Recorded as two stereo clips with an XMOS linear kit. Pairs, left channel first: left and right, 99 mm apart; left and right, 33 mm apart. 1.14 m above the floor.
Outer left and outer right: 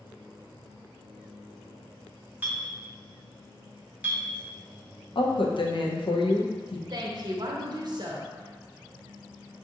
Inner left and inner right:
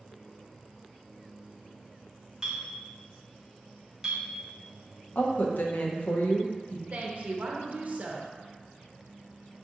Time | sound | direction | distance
2.4 | a clink | 20° right (ahead or behind) | 0.9 m
5.2 | a woman speaking | 60° left (ahead or behind) | 0.7 m
6.9 | a woman speaking | 45° right (ahead or behind) | 0.7 m